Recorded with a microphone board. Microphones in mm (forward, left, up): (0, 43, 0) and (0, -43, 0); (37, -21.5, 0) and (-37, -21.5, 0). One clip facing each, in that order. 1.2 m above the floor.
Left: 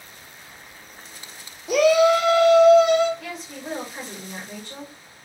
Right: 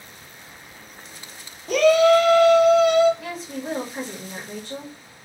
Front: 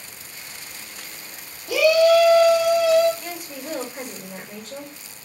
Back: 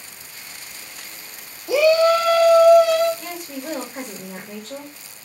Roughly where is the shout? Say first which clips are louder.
Right 1 dB, even; behind.